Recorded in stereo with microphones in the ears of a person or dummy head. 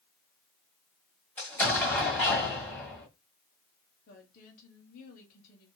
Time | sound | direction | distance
1.4 | an explosion | 5° left (ahead or behind) | 1.7 m
4.1 | a woman speaking | 50° left (ahead or behind) | 1.3 m